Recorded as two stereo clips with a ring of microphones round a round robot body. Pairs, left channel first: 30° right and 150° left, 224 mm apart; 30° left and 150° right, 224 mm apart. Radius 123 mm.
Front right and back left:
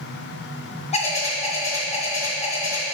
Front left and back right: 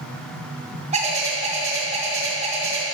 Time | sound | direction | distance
0.9 | a bird | 90° right | 1.8 m